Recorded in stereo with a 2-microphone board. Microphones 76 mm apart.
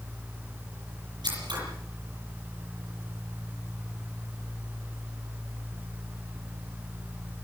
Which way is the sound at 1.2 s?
75° right (ahead or behind).